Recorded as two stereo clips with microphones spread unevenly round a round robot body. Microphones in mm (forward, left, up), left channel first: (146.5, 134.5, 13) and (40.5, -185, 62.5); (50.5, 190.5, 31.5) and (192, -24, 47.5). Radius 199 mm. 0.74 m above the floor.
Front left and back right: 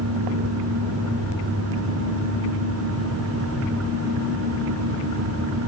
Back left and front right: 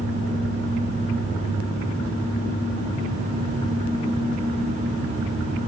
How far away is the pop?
No pop in this recording.